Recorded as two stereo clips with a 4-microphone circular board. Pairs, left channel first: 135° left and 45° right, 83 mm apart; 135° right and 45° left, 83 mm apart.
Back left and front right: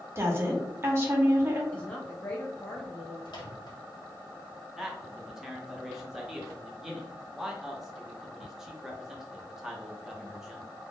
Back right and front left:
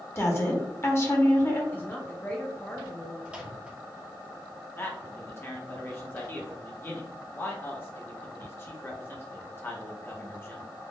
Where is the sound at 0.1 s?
90° right, 0.7 m.